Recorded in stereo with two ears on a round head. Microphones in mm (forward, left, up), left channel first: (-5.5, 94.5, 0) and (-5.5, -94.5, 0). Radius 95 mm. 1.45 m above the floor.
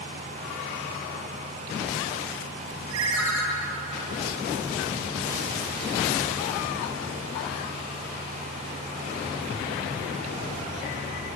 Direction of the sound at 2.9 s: 75° right (ahead or behind).